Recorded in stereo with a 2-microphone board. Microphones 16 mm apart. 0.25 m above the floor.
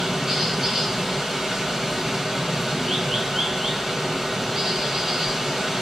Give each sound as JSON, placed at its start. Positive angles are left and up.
{"t": 0.0, "sound": "running water", "side_deg": -55, "distance_m": 1.9}